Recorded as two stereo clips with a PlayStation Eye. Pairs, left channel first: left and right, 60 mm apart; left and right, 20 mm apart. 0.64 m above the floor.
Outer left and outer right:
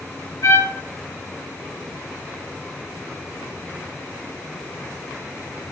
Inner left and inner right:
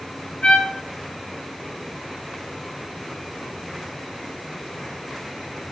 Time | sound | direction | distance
0.4 | a trumpet | 75° left (ahead or behind) | 6 m